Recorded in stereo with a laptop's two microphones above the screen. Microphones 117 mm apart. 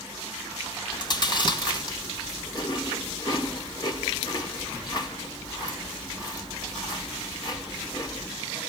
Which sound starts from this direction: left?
Chewing, at 0.9 s.